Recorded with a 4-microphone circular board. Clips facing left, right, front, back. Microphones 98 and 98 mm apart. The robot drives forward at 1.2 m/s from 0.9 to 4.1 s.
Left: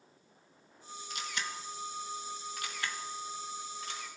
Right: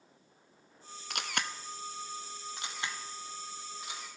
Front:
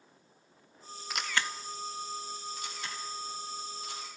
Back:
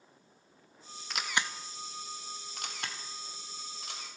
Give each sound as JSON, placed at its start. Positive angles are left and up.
{"t": 1.1, "sound": "a camera shutter", "azimuth_deg": -85, "distance_m": 0.9}